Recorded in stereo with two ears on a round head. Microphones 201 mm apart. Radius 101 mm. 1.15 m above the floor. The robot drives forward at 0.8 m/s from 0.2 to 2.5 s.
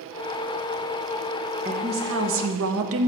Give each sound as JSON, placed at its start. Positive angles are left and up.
{"t": 1.6, "sound": "a woman speaking", "side_deg": -35, "distance_m": 0.9}